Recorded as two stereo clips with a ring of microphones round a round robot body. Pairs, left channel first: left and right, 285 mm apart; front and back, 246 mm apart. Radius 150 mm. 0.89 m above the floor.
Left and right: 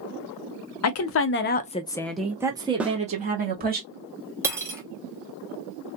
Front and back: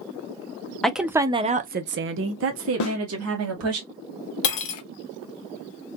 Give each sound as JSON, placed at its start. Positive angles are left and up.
{"t": 0.8, "sound": "a woman speaking", "azimuth_deg": 85, "distance_m": 0.8}
{"t": 2.8, "sound": "a snare drum", "azimuth_deg": -5, "distance_m": 0.7}
{"t": 4.4, "sound": "cutlery clinking", "azimuth_deg": -10, "distance_m": 0.7}